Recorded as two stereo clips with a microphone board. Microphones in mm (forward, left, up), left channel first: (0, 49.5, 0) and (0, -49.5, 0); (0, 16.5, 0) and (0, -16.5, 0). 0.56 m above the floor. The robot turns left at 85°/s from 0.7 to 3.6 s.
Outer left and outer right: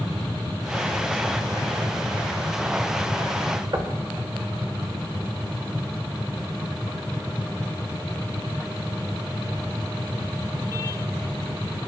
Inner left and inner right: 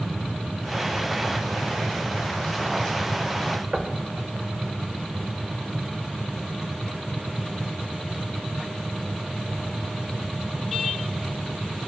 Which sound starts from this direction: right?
Knocking, at 3.7 s.